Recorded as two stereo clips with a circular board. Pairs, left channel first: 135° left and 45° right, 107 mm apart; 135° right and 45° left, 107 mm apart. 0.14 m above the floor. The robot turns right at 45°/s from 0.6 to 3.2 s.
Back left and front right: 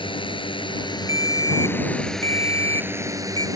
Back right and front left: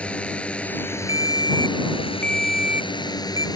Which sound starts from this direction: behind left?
A drone, at 0.0 s.